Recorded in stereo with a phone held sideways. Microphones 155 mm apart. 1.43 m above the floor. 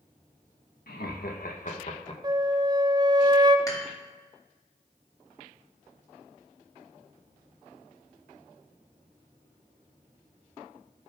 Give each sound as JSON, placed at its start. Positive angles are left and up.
{"t": 0.9, "sound": "laughter", "side_deg": 85, "distance_m": 1.7}
{"t": 2.2, "sound": "a flute", "side_deg": -30, "distance_m": 0.6}
{"t": 3.7, "sound": "dishes clattering", "side_deg": 20, "distance_m": 2.5}